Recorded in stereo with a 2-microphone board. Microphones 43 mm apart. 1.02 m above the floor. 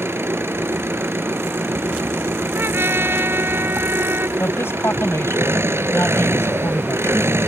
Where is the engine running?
80° right.